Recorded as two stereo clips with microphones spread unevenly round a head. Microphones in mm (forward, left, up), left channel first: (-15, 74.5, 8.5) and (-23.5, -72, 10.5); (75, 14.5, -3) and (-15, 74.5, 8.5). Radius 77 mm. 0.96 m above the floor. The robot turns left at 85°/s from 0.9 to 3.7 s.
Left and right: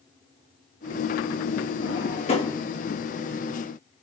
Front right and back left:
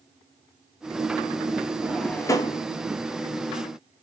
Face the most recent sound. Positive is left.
turn(degrees=-90)